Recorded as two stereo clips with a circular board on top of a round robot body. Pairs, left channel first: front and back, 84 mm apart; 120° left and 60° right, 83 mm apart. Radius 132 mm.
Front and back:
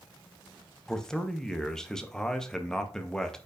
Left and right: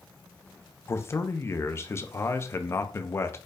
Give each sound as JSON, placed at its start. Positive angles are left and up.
{"t": 0.9, "sound": "a man speaking", "azimuth_deg": 80, "distance_m": 0.8}